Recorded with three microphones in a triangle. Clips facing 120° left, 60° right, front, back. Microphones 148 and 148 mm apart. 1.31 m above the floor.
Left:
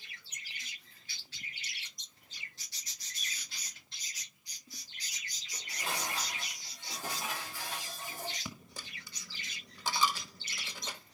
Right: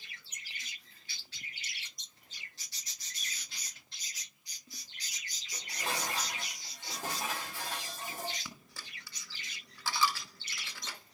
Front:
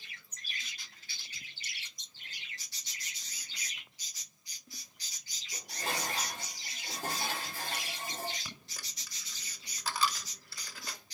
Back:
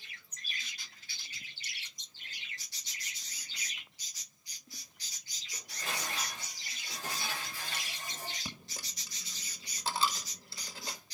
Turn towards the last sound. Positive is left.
turn(degrees=165)